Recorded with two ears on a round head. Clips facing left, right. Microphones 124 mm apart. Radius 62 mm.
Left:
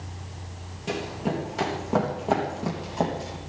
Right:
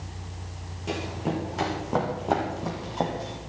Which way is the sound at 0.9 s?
Centre (ahead or behind).